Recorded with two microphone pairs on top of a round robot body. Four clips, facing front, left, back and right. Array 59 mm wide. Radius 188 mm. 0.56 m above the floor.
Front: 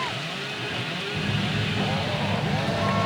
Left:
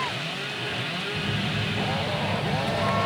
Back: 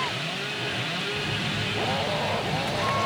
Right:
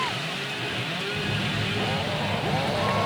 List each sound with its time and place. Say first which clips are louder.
1.1 s a phone buzzing: even, front 2 dB; 45° left, 5 m